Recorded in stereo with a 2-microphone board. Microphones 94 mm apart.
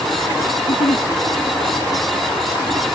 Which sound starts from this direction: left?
A giggle, at 0.6 s.